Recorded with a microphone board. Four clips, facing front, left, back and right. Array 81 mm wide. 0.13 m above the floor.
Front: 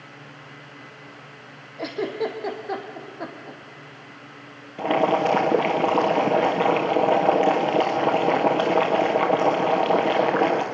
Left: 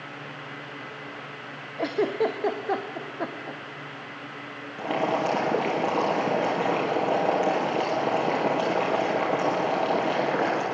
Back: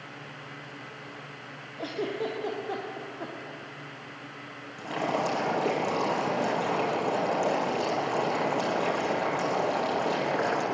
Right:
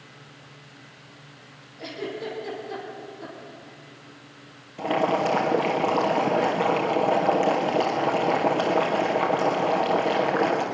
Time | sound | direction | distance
1.8 | a giggle | 70° left | 2 m
4.8 | boiling | 5° right | 2.5 m